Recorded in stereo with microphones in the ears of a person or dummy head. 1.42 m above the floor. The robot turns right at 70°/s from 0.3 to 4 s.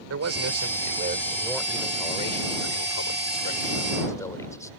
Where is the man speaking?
95° right; by 4.7 s 165° left.